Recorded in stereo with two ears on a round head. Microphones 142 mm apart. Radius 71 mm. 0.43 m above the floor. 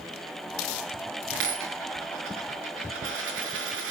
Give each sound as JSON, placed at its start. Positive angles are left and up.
{"t": 1.3, "sound": "a dropped coin", "side_deg": -80, "distance_m": 3.5}